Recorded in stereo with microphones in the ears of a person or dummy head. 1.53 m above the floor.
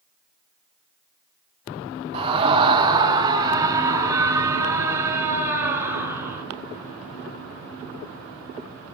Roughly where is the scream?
Right.